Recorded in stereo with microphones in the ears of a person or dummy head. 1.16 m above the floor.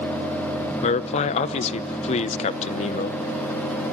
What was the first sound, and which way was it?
A man speaking, 35° left (ahead or behind).